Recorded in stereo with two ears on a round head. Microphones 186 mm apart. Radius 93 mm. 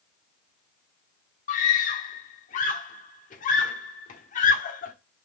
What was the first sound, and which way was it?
A scream, 40° left (ahead or behind).